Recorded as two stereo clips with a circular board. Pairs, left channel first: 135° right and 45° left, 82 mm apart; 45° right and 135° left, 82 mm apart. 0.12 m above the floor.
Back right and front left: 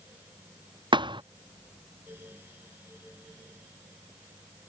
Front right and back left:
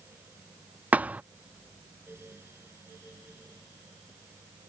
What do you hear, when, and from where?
0.9 s a thud: 65° left